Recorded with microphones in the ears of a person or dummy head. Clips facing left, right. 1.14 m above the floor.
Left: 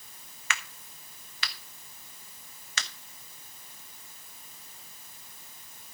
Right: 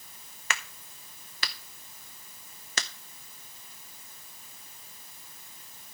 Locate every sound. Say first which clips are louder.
0.5 s a crack: right 1 dB; 30° right (ahead or behind), 0.8 m